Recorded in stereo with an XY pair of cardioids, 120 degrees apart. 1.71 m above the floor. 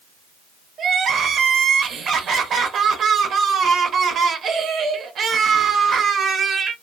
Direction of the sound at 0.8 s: 50° right.